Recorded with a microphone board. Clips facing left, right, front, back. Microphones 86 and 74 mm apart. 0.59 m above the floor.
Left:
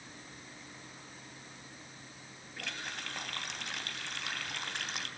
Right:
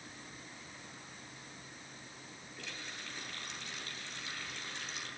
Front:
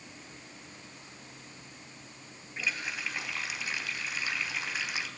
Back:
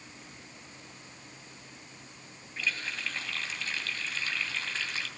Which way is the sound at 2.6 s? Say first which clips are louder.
Left 6 dB, even; 75° left.